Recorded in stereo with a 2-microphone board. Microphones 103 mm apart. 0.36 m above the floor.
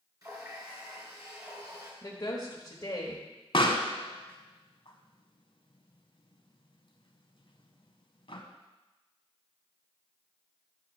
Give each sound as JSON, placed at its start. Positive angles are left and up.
{"t": 0.2, "sound": "a running tap", "side_deg": -35, "distance_m": 3.0}
{"t": 2.0, "sound": "a woman speaking", "side_deg": 40, "distance_m": 1.2}
{"t": 3.5, "sound": "a pop", "side_deg": 60, "distance_m": 1.0}